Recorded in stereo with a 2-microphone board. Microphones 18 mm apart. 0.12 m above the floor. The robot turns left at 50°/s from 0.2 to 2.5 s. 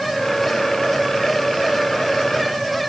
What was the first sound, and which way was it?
Only background noise.